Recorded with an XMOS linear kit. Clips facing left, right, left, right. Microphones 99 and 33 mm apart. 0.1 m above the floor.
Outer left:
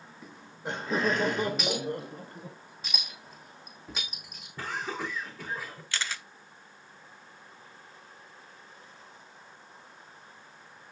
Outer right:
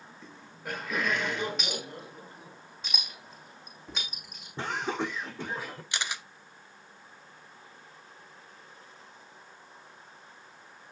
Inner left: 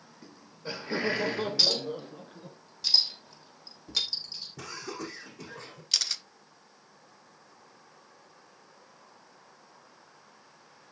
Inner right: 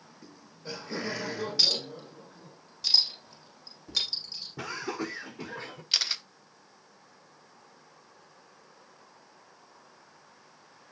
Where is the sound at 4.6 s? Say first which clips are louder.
Outer right 3 dB, inner right 6 dB; 25° right (ahead or behind), 6 m.